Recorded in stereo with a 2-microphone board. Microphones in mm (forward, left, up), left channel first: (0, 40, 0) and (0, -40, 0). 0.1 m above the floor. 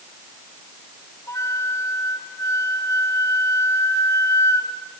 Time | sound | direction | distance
1.3 | a flute | 35° left (ahead or behind) | 5 m